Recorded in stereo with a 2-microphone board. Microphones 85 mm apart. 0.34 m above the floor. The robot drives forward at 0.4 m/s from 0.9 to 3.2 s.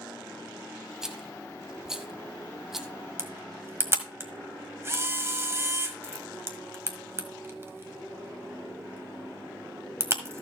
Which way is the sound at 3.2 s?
30° right (ahead or behind).